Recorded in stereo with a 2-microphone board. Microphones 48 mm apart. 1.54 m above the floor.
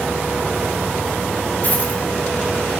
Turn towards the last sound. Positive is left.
turn(degrees=35)  # may be behind; listen again after turning